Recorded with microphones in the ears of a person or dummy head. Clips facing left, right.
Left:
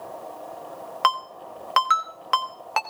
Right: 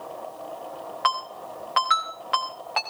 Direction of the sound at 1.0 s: 55° left (ahead or behind).